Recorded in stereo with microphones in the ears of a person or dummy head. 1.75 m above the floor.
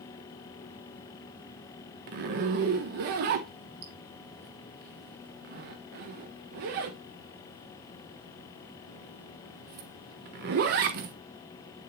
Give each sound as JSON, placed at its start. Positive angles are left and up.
{"t": 2.1, "sound": "a zipper", "side_deg": -45, "distance_m": 1.0}